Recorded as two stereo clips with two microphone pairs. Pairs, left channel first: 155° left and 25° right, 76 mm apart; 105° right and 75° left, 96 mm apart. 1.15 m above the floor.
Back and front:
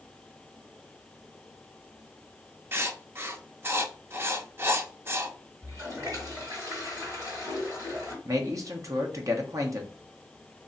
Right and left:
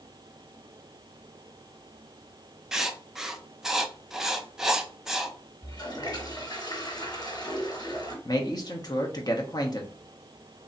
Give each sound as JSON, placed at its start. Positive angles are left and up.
{"t": 2.7, "sound": "writing", "azimuth_deg": -5, "distance_m": 0.6}
{"t": 5.6, "sound": "a toilet flushing", "azimuth_deg": -65, "distance_m": 2.5}
{"t": 8.2, "sound": "a man speaking", "azimuth_deg": -60, "distance_m": 1.0}